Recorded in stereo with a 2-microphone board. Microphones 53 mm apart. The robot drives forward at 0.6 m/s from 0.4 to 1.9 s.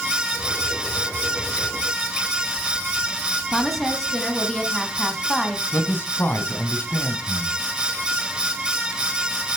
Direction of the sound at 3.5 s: 5° left (ahead or behind).